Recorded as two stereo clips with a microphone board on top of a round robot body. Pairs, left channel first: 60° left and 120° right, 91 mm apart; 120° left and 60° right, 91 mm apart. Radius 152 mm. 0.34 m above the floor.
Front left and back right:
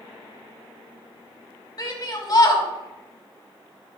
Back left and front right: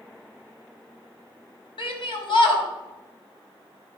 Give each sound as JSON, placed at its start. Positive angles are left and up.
{"t": 1.8, "sound": "a shout", "azimuth_deg": 100, "distance_m": 3.0}